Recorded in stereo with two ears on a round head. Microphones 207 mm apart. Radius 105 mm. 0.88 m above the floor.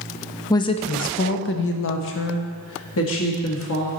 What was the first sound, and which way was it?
A woman speaking, 15° left (ahead or behind).